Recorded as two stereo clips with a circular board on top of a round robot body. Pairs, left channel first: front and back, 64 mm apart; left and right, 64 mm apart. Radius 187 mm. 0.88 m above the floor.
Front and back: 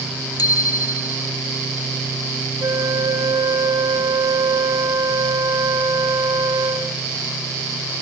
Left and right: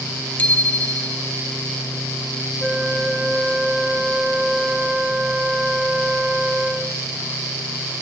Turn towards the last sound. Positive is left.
turn(degrees=-170)